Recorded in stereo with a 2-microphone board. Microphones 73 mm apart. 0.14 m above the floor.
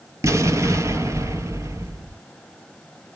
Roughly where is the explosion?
Right.